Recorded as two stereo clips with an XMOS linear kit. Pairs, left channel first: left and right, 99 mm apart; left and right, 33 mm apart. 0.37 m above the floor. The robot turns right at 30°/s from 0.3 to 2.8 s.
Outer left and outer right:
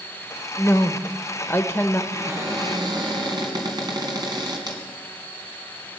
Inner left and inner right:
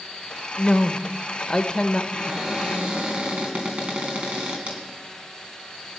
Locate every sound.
0.6 s a woman speaking: 95° left, 1.0 m; by 2.0 s 140° left, 1.0 m
2.1 s a cupboard door: 25° right (ahead or behind), 2.5 m; by 4.8 s 45° right (ahead or behind), 2.5 m